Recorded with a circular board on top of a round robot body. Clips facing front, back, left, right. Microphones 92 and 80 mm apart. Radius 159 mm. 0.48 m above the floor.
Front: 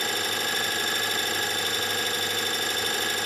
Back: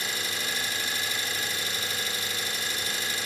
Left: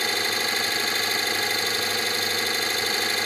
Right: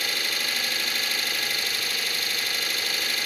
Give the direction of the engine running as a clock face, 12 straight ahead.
11 o'clock.